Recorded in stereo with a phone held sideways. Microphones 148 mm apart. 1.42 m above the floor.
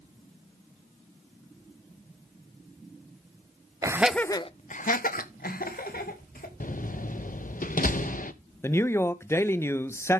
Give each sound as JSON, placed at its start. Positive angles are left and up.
{"t": 3.8, "sound": "laughter", "side_deg": -25, "distance_m": 0.7}
{"t": 6.6, "sound": "a door slam", "side_deg": 65, "distance_m": 0.9}
{"t": 8.6, "sound": "a man speaking", "side_deg": 15, "distance_m": 0.8}